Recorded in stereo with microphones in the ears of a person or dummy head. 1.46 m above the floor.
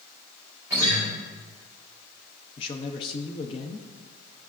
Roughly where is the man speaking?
Left.